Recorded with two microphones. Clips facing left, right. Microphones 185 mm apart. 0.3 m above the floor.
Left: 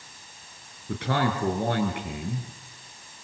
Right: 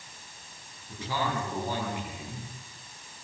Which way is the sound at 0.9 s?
70° left (ahead or behind).